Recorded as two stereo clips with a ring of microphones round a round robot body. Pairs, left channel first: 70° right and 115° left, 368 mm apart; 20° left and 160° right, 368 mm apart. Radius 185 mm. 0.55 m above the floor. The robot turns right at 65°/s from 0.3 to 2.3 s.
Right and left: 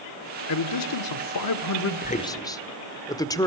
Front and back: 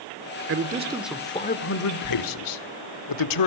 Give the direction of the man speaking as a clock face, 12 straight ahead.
4 o'clock.